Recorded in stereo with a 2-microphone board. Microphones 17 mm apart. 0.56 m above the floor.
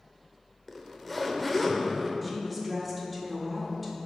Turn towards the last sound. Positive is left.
turn(degrees=0)  # may be behind; listen again after turning